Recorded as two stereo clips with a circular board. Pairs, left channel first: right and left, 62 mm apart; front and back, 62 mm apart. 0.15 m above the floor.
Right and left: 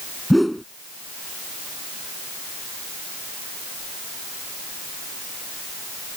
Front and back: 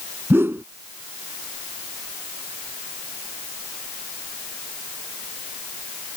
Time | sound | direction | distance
0.3 | a whoosh | straight behind | ?